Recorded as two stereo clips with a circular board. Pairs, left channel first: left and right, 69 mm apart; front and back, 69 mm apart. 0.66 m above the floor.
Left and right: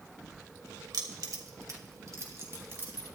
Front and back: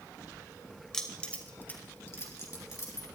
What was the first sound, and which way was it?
Keys jangling, 80° right.